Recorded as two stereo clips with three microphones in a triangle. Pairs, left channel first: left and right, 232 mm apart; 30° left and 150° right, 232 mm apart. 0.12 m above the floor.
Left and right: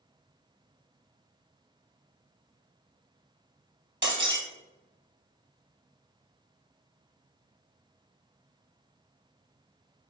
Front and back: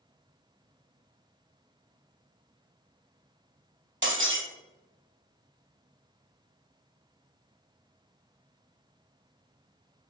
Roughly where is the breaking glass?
Behind right.